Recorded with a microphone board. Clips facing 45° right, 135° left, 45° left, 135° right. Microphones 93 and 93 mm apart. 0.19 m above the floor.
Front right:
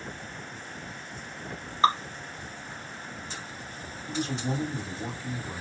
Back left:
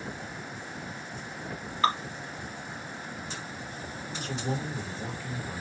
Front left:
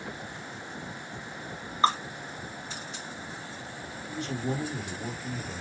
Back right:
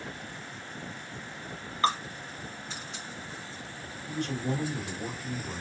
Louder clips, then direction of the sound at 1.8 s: Front right 3 dB, front left 3 dB; 5° right.